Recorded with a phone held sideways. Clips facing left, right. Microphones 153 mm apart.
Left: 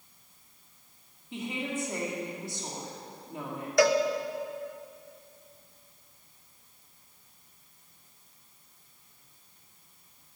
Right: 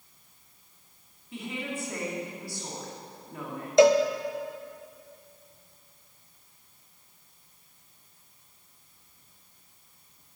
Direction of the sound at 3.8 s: 20° right (ahead or behind).